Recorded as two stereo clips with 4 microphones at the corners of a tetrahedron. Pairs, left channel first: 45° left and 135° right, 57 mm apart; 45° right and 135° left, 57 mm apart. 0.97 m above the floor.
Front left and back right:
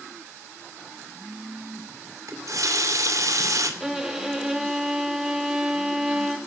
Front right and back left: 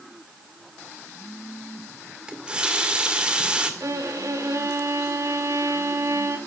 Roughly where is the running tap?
Behind right.